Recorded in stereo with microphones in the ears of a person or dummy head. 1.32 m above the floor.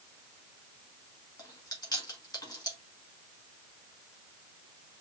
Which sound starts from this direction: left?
Chewing, at 1.4 s.